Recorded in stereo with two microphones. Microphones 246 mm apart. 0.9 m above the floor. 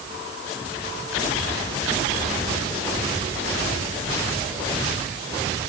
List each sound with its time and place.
Only background noise.